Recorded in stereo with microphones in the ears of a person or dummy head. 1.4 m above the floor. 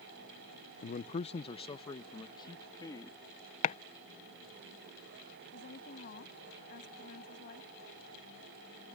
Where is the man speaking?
40° left (ahead or behind); by 3.2 s 15° left (ahead or behind).